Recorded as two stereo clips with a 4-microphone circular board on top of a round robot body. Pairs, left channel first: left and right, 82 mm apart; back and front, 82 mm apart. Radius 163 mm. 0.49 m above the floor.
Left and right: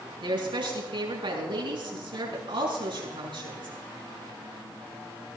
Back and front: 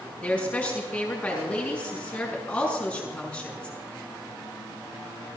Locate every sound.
0.2 s a woman speaking: 105° right, 6.5 m